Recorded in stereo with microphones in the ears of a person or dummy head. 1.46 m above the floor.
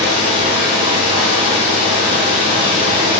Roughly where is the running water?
Right.